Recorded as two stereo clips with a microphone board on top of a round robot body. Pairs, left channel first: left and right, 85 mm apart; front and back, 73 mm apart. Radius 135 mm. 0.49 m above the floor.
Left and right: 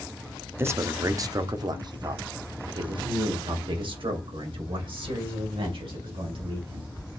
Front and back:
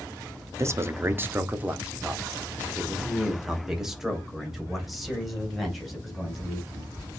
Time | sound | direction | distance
0.6 | a man speaking | 145° right | 1.1 m